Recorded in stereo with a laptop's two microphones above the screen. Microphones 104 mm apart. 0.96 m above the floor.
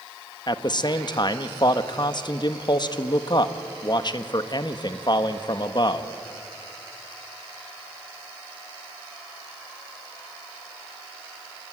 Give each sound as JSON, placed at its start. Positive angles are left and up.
{"t": 0.5, "sound": "a man speaking", "side_deg": 45, "distance_m": 1.4}